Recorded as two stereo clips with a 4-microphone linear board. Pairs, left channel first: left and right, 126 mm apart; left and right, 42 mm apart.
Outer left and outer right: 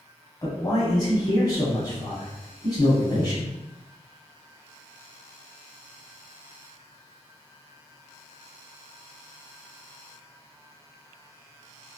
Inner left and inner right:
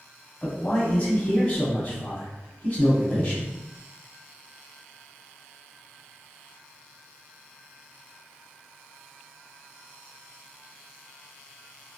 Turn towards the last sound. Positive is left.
turn(degrees=30)  # may be behind; listen again after turning